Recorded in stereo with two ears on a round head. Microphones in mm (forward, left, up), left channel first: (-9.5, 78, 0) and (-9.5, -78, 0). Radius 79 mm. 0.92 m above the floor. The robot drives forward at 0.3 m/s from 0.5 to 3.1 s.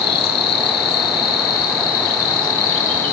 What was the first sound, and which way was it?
An insect, 65° left (ahead or behind).